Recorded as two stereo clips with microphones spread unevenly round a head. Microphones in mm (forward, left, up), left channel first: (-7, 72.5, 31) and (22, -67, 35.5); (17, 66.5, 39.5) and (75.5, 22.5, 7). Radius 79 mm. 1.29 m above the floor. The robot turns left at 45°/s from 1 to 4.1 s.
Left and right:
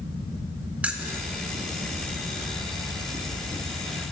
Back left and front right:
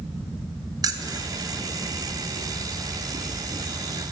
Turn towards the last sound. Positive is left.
turn(degrees=-135)